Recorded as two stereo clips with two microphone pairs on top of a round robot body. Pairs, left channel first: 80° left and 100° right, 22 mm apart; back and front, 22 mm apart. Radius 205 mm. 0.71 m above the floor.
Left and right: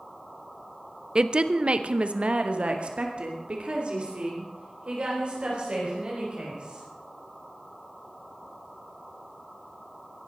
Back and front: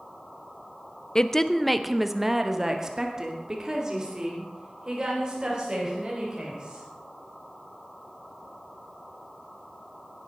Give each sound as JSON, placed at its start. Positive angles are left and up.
{"t": 1.1, "sound": "a woman speaking", "azimuth_deg": -135, "distance_m": 1.0}